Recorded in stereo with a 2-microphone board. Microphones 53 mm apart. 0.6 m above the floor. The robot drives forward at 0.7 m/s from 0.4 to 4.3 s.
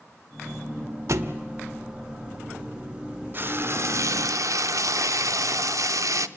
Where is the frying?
40° right (ahead or behind), 0.9 m; by 6.3 s 75° right (ahead or behind), 0.6 m.